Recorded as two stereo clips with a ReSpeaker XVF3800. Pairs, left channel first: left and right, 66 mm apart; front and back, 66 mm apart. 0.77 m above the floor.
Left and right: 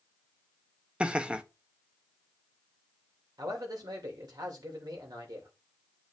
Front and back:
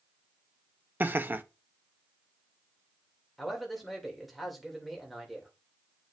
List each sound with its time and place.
1.0 s laughter: 150° right, 0.6 m
3.4 s a man speaking: 90° right, 2.5 m